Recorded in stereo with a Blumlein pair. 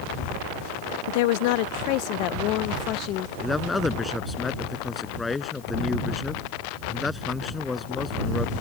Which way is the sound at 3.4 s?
10° left.